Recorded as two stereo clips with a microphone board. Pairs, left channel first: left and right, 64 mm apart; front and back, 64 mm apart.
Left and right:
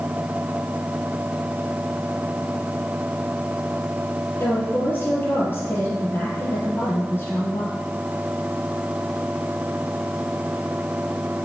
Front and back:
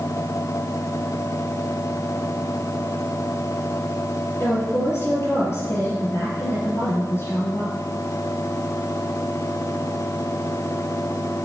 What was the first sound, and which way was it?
A woman speaking, 40° left.